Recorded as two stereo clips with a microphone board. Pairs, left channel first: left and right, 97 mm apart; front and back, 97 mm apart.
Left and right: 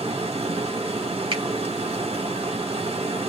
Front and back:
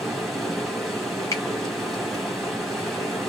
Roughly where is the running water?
Right.